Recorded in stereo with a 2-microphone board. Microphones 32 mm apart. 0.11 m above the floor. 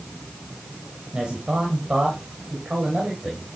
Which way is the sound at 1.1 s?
30° right (ahead or behind).